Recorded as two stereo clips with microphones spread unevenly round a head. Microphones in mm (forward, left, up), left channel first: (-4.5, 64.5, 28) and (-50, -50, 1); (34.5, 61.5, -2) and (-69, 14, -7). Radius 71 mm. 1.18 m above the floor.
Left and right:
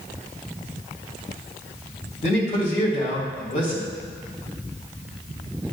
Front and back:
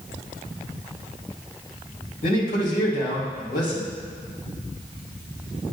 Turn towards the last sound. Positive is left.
turn(degrees=25)